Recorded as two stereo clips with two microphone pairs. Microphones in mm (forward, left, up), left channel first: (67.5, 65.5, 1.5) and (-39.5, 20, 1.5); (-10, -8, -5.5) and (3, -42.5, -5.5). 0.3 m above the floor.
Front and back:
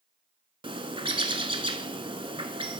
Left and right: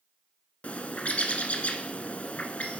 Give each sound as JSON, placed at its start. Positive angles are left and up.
{"t": 0.6, "sound": "a bird", "azimuth_deg": 160, "distance_m": 1.0}